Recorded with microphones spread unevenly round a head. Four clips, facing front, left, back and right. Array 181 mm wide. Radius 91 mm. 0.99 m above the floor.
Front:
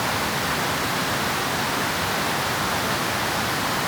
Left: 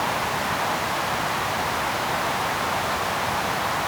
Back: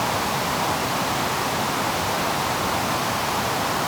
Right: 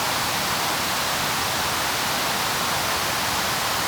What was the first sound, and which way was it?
Only background noise.